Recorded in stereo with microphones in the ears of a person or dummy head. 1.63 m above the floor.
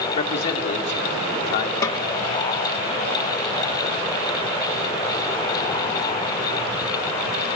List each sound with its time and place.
0.1 s a man speaking: 35° left (ahead or behind), 1.5 m
1.8 s a snare drum: 20° left (ahead or behind), 1.8 m